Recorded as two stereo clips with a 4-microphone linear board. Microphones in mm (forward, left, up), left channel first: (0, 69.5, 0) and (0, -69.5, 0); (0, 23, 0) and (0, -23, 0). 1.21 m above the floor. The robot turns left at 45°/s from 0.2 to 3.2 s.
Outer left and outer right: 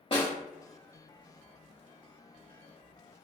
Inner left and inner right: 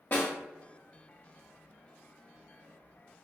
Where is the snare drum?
40° left (ahead or behind), 0.9 m; by 0.3 s 45° left (ahead or behind), 0.9 m.